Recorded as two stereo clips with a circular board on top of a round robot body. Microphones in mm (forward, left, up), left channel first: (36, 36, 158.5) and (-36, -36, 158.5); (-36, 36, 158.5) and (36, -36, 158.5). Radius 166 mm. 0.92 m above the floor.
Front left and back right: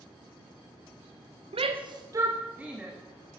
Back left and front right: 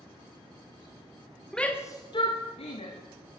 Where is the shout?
140° right, 1.1 m; by 3.0 s 140° left, 2.0 m.